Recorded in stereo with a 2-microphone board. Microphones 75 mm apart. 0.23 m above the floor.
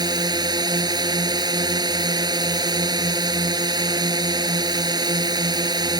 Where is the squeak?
No squeak in this recording.